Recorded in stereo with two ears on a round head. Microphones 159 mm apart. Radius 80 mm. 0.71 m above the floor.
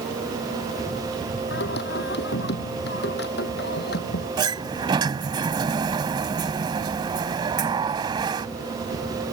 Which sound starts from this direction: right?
A sliding door, at 4.4 s.